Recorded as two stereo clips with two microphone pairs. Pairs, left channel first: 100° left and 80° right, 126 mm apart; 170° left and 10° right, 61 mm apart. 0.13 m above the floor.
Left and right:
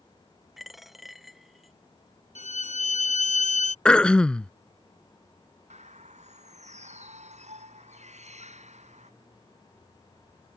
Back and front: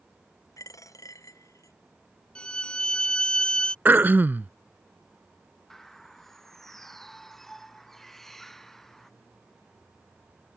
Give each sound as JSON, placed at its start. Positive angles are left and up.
{"t": 0.6, "sound": "a dropped coin", "azimuth_deg": -170}
{"t": 2.4, "sound": "a violin", "azimuth_deg": 95}
{"t": 3.9, "sound": "throat clearing", "azimuth_deg": 20}
{"t": 5.7, "sound": "a bird", "azimuth_deg": -110}